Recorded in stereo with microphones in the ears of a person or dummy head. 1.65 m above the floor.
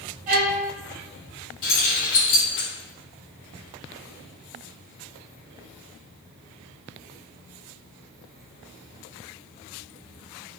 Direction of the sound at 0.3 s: 50° right (ahead or behind).